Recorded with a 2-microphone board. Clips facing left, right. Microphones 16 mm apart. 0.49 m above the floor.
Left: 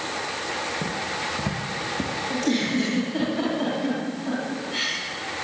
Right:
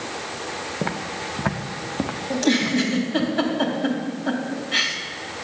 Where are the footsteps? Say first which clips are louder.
Even; 70° right (ahead or behind), 1.3 m; by 3.3 s 30° right (ahead or behind), 3 m.